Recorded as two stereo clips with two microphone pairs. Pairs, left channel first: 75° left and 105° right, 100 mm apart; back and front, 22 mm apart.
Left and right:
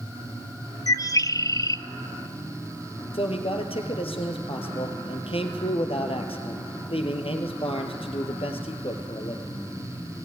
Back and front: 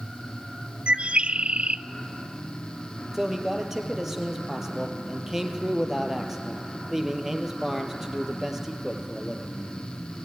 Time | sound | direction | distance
0.9 | a bird | 20° left | 0.6 m
3.1 | a man speaking | 70° left | 3 m